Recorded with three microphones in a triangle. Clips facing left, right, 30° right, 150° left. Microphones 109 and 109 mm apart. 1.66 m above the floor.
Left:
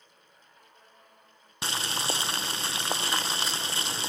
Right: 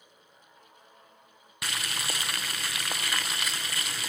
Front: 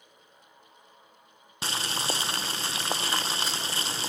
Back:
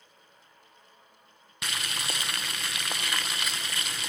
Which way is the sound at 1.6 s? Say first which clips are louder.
Left 4 dB, front 4 dB; 30° left.